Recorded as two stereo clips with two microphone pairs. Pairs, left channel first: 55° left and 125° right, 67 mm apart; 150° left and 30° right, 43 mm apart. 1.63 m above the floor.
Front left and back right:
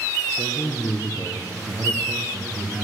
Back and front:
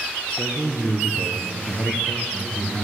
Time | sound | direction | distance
0.3 | a man speaking | 85° left | 1.3 m